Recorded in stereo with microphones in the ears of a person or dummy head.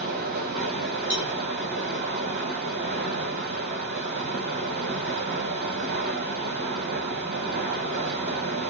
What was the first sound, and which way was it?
Running water, 45° right (ahead or behind).